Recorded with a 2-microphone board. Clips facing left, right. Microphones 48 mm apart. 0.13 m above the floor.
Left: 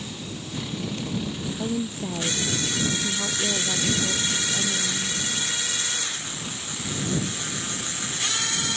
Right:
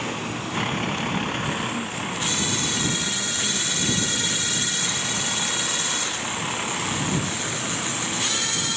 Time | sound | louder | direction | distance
0.0 | a vehicle | right 7 dB | 55° right (ahead or behind) | ?
1.6 | a woman speaking | even | 35° left (ahead or behind) | ?